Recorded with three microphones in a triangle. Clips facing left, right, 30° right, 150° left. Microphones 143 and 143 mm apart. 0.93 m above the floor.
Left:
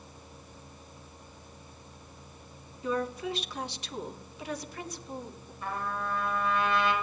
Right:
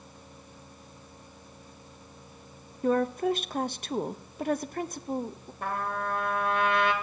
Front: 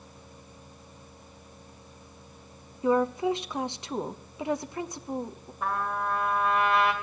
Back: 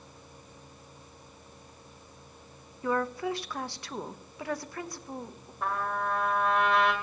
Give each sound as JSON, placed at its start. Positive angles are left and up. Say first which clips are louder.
{"t": 2.8, "sound": "a woman speaking", "louder": "right 6 dB, front 6 dB", "azimuth_deg": -95, "distance_m": 0.8}
{"t": 5.6, "sound": "a trumpet", "louder": "right 3 dB, front 1 dB", "azimuth_deg": -120, "distance_m": 2.0}